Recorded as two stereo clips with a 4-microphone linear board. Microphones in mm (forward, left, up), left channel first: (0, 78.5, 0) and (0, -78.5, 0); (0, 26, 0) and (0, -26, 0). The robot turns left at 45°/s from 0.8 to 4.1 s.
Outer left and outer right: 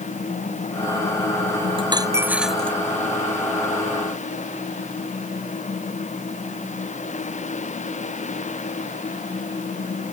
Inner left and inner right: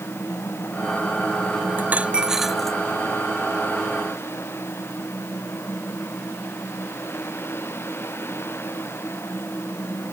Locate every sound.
1.8 s a dropped coin: 145° right; by 2.8 s 170° left